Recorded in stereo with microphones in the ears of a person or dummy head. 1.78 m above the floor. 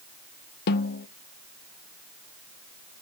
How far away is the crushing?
I don't hear crushing.